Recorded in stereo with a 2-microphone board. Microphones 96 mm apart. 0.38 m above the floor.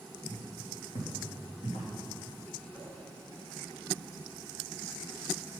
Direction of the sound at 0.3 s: 80° left.